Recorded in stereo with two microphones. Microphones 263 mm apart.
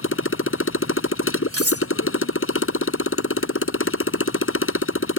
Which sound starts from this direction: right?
Cutlery clinking, at 1.5 s.